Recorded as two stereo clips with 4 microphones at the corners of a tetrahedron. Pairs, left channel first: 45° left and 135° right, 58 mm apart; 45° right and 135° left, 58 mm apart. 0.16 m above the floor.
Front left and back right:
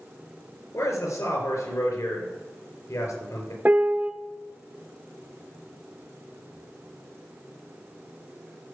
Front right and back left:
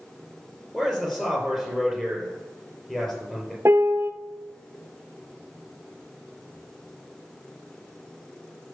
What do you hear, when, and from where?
0.7 s a man speaking: 35° left, 4 m
3.6 s a piano: 165° left, 0.7 m